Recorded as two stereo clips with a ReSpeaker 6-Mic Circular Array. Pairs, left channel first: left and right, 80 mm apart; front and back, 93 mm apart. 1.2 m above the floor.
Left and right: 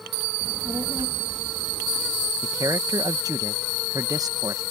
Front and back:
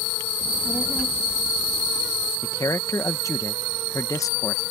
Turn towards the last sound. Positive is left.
turn(degrees=-50)